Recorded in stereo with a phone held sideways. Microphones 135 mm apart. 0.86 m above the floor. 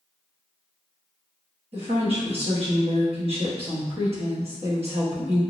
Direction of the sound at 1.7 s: 50° right (ahead or behind).